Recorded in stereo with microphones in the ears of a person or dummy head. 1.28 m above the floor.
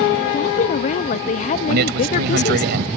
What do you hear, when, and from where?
0.3 s a woman speaking: 40° left (ahead or behind)
1.7 s a man speaking: 60° right (ahead or behind)